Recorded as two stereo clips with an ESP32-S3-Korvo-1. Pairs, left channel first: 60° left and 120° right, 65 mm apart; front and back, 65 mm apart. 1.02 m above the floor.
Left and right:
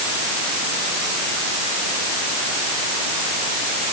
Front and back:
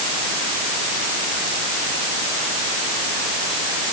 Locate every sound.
Only background noise.